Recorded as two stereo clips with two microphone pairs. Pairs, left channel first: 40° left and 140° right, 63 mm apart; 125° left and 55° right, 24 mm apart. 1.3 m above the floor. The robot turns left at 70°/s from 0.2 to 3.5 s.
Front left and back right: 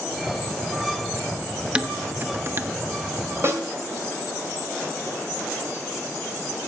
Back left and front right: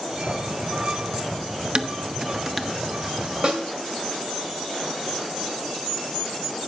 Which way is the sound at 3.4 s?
100° right.